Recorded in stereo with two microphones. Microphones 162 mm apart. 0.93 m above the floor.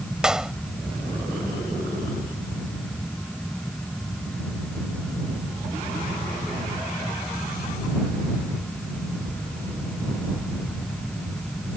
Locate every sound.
0.2 s a clap: 5° right (ahead or behind)